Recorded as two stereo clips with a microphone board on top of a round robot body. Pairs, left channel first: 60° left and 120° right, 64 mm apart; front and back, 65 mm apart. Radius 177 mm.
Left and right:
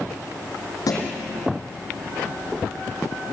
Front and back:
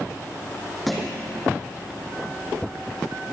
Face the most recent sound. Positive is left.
turn(degrees=90)